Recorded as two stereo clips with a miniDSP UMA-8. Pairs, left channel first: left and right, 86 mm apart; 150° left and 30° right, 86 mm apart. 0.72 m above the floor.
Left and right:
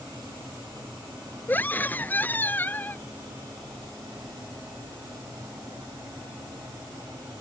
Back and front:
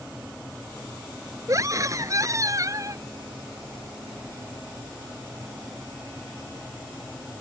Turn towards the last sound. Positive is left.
turn(degrees=20)